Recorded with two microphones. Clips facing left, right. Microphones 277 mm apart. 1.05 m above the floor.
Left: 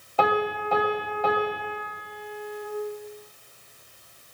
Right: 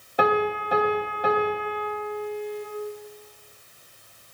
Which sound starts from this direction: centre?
A piano, at 0.2 s.